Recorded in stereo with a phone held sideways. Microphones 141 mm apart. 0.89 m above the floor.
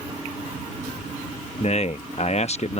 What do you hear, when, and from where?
1.6 s a man speaking: 50° left (ahead or behind)